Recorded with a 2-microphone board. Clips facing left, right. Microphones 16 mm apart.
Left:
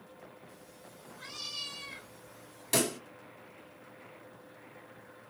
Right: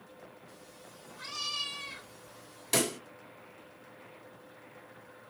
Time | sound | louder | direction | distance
0.5 | a cat meowing | right 1 dB | 50° right (ahead or behind) | 0.9 m
2.7 | a pop | even | 10° right (ahead or behind) | 1.7 m